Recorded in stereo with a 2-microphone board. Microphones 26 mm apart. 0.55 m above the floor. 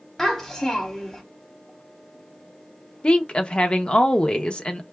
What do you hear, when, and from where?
0.2 s a child speaking: 15° left (ahead or behind), 1.3 m
3.0 s a woman speaking: 40° left (ahead or behind), 0.7 m